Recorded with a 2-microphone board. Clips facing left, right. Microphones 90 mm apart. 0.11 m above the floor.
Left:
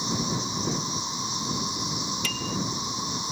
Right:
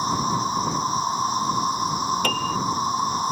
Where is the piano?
55° right (ahead or behind).